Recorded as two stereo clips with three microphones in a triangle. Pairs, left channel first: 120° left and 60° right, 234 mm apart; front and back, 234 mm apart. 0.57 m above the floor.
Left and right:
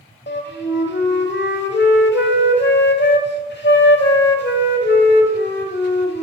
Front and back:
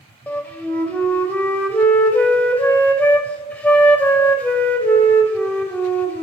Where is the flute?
85° left, 0.8 m.